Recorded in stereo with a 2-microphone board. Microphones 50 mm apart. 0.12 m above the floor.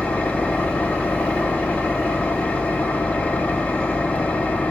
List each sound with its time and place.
0.0 s an engine running: 30° left (ahead or behind), 0.8 m